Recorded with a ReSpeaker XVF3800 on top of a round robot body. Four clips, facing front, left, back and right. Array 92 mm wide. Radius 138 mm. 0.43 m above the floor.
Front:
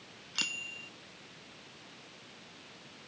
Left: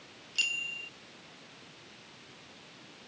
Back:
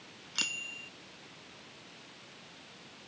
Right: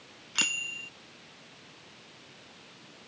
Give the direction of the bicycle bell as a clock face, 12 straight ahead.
3 o'clock.